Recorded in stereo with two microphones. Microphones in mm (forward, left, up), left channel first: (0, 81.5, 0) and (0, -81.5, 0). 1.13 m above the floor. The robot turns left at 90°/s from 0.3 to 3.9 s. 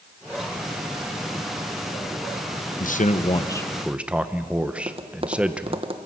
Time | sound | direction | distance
2.8 | a man speaking | 90° left | 0.9 m
4.8 | tapping | 35° right (ahead or behind) | 1.0 m